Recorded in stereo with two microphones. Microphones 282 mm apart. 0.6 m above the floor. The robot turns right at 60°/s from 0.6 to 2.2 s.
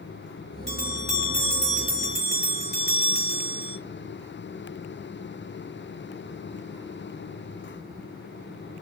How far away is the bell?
About 3 m.